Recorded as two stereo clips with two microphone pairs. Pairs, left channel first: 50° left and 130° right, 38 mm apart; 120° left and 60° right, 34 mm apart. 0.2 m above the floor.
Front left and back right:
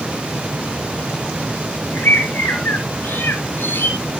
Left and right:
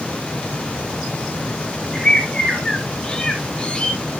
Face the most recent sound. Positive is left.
turn(degrees=55)